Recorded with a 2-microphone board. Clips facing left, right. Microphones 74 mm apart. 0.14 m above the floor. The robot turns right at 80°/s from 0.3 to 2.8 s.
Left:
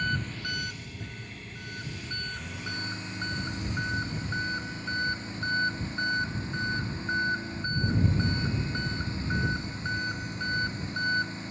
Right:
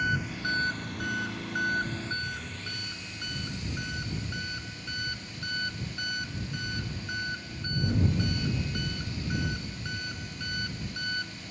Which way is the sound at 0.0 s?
170° right.